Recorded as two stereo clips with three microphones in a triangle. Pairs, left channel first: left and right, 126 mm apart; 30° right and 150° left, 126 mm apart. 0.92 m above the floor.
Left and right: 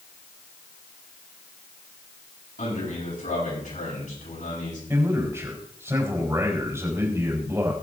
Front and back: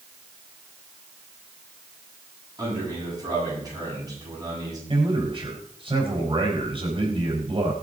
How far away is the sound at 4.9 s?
About 4.5 m.